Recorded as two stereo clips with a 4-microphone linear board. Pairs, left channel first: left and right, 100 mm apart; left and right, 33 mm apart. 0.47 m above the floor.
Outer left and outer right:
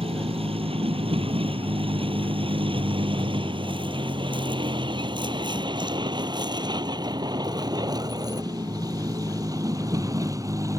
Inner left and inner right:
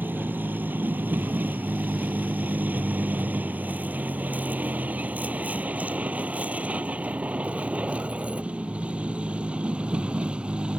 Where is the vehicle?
70° right (ahead or behind); by 10.8 s 35° right (ahead or behind).